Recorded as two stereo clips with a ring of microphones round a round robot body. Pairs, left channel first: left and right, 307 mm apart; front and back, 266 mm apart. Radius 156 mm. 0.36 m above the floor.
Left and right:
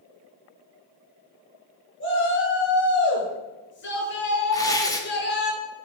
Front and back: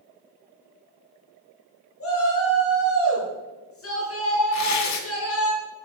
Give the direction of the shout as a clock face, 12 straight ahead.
11 o'clock.